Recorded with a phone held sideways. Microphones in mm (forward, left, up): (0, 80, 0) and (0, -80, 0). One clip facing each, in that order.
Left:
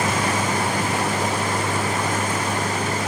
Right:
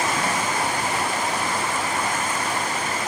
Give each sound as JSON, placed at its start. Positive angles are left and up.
{"t": 0.0, "sound": "a vehicle", "side_deg": 90}